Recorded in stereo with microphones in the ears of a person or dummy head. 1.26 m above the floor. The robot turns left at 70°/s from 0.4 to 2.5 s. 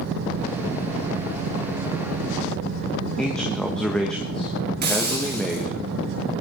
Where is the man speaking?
5° left (ahead or behind), 1.4 m.